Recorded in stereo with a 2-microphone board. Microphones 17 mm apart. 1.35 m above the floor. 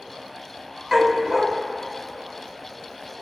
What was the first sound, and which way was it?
A dog barking, 20° right (ahead or behind).